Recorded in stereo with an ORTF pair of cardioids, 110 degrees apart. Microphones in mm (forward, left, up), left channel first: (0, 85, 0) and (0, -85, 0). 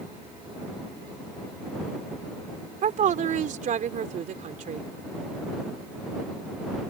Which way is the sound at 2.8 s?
50° right.